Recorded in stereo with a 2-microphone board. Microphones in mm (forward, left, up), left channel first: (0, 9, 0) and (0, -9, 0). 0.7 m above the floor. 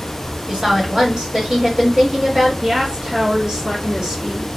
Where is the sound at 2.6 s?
40° right (ahead or behind), 1.6 m.